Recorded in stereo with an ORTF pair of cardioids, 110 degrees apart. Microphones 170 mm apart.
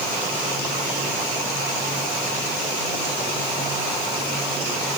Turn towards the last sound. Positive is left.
No sound to turn to.